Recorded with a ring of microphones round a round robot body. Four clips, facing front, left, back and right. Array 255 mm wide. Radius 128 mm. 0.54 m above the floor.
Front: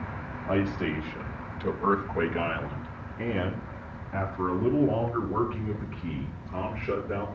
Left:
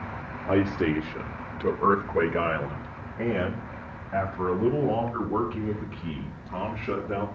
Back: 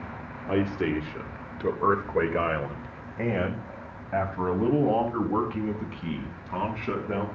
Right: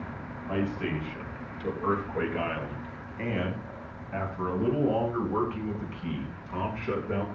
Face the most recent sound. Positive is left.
turn(degrees=175)